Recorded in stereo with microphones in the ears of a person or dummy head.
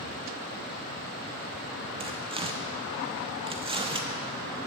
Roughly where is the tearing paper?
Right.